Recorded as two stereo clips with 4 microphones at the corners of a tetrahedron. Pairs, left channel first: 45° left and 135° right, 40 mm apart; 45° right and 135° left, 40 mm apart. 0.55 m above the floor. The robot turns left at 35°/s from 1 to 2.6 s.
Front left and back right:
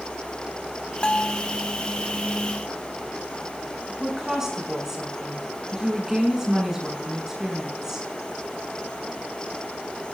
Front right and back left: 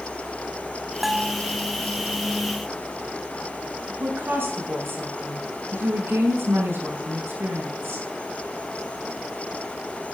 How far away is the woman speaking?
About 6 m.